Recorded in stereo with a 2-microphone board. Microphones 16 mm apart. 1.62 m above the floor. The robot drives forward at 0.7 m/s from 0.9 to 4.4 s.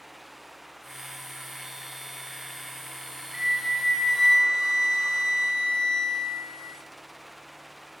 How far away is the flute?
About 0.6 m.